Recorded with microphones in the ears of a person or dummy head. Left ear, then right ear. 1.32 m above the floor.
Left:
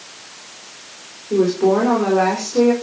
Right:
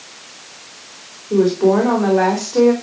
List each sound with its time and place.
1.3 s a woman speaking: 20° right (ahead or behind), 4 m